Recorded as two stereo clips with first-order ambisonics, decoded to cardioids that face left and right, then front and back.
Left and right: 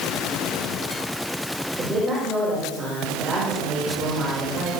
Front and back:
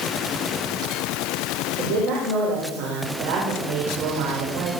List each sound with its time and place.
1.8 s a woman speaking: 165° right, 4.5 m